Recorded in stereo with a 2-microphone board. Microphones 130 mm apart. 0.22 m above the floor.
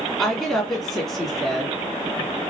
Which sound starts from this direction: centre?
A woman speaking, at 0.2 s.